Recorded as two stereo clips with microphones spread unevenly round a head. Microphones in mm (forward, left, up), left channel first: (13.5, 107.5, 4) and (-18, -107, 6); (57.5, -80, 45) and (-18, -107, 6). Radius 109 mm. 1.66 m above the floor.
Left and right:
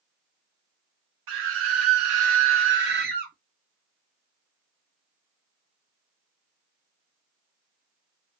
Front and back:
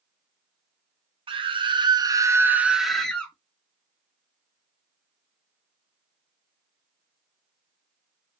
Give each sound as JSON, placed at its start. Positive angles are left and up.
{"t": 1.3, "sound": "a scream", "azimuth_deg": -130, "distance_m": 1.3}